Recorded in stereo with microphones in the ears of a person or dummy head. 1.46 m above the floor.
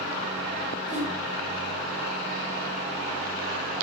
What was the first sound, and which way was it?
A whoosh, 5° right (ahead or behind).